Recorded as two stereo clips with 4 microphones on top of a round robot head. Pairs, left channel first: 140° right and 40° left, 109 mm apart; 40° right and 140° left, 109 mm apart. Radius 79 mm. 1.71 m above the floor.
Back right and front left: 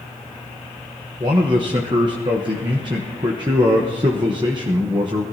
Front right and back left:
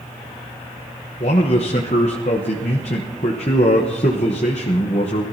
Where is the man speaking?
10° right, 1.0 m.